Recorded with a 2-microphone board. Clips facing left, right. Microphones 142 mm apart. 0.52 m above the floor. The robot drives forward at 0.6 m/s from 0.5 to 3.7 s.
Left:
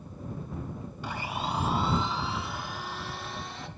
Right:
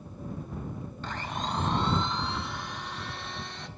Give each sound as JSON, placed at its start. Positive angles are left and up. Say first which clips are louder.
{"t": 1.0, "sound": "a blender", "louder": "left 1 dB", "side_deg": 10, "distance_m": 0.5}